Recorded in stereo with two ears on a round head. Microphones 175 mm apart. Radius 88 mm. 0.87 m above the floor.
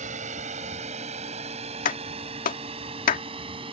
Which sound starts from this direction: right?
A drone, at 0.0 s.